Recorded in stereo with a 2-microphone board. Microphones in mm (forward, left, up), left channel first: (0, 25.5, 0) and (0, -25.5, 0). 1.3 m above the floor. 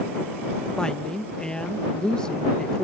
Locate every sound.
0.8 s a woman speaking: 15° left (ahead or behind)